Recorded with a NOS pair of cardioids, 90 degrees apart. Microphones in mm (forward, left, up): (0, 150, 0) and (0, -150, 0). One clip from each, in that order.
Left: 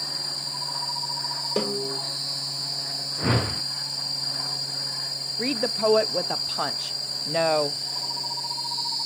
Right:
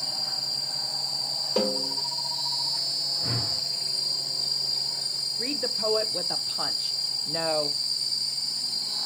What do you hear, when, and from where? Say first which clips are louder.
1.6 s a snare drum: right 2 dB; 20° left, 5 m
3.2 s a whoosh: left 1 dB; 65° left, 0.6 m
5.4 s a woman speaking: left 6 dB; 35° left, 0.7 m